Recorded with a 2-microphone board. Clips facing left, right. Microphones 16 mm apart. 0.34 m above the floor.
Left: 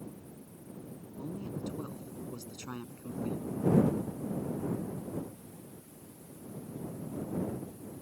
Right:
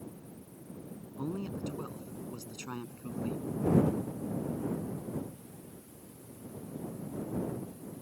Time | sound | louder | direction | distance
1.2 | a man speaking | right 3 dB | 50° right (ahead or behind) | ?